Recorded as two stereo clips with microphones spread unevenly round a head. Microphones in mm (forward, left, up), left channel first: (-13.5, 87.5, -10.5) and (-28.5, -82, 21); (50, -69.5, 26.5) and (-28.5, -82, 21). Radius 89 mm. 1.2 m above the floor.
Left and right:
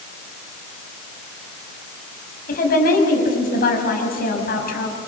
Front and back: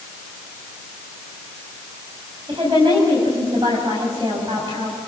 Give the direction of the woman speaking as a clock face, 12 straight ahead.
8 o'clock.